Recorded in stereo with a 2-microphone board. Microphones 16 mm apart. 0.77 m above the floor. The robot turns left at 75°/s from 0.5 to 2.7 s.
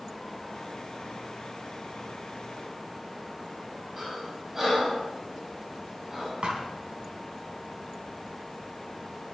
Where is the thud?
60° right (ahead or behind), 3.5 m.